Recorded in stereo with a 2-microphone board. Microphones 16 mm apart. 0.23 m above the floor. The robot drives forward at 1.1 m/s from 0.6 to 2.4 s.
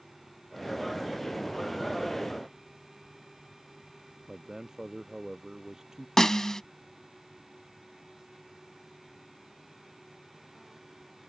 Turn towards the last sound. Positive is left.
turn(degrees=40)  # may be behind; listen again after turning